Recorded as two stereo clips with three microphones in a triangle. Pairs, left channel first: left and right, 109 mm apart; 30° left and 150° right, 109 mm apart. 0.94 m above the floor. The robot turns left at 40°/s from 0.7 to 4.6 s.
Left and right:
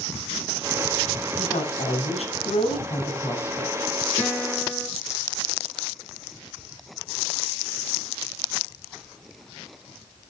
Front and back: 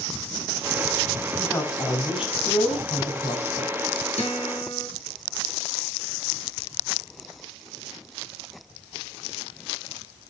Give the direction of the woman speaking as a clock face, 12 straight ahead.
8 o'clock.